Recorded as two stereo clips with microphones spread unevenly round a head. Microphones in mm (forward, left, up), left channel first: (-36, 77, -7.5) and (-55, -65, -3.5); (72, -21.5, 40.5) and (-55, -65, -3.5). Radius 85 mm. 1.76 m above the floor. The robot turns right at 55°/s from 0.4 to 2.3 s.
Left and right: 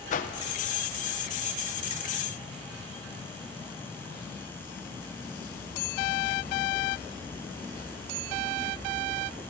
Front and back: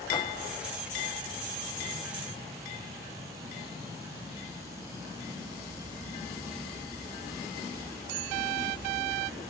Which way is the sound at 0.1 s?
60° left.